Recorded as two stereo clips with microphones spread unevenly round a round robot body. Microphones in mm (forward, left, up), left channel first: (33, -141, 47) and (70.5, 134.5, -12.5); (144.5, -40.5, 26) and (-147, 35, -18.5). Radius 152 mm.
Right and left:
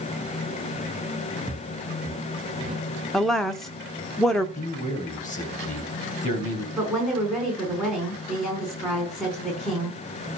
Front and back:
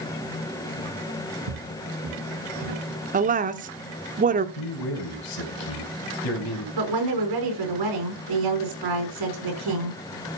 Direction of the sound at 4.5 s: 30° right.